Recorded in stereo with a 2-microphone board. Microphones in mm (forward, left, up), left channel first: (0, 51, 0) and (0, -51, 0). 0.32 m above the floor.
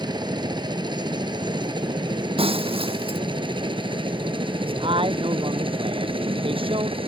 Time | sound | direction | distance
0.0 | a helicopter | 45° right (ahead or behind) | ?
2.4 | breaking glass | 60° right (ahead or behind) | ?
4.6 | a man speaking | 55° right (ahead or behind) | ?